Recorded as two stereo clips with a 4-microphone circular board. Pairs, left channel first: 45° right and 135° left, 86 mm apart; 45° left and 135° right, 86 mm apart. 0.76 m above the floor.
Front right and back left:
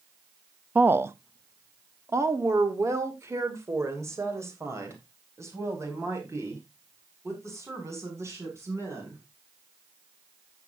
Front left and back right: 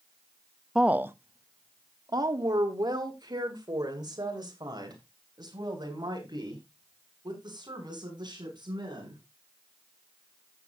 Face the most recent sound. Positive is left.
turn(degrees=-170)